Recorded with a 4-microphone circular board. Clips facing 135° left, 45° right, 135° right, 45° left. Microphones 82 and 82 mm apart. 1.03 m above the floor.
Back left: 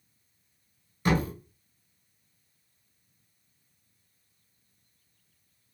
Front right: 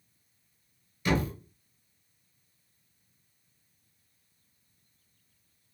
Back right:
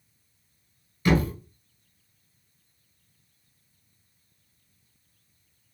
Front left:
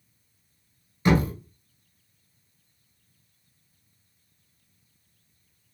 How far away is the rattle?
I don't hear a rattle.